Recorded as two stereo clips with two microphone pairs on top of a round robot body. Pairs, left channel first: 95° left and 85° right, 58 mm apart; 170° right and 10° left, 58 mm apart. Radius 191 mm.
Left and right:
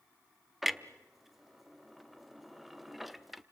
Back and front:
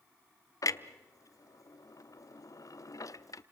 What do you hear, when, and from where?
0.6 s a clunk: 175° right, 0.8 m